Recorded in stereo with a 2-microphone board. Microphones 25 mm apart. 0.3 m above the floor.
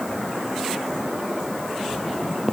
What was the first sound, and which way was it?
Only background noise.